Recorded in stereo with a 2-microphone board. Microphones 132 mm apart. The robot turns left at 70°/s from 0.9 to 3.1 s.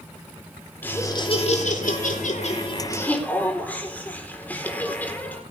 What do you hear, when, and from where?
0.8 s laughter: 165° left, 4 m; by 5.4 s 10° left, 4 m